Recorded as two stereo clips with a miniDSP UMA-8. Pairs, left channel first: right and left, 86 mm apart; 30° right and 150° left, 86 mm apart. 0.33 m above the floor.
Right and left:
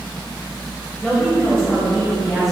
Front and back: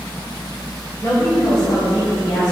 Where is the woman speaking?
15° right, 1.7 m; by 2.5 s 5° right, 2 m.